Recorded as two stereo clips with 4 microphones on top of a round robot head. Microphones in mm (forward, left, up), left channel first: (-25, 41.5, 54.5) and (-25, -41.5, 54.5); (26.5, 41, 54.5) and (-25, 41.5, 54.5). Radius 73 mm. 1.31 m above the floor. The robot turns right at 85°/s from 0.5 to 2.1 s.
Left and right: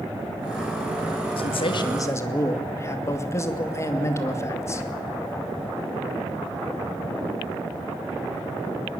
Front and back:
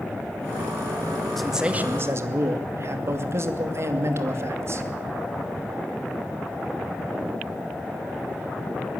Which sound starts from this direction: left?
A man speaking, at 1.4 s.